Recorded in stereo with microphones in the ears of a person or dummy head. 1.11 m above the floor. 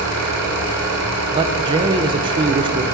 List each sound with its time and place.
0.0 s an engine running: 80° right, 3 m
1.3 s a man speaking: 25° right (ahead or behind), 0.7 m